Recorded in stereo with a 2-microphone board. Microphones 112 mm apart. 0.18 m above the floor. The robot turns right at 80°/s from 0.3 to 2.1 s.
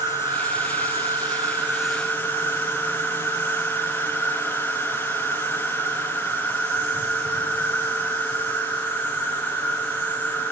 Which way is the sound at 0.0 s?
130° right.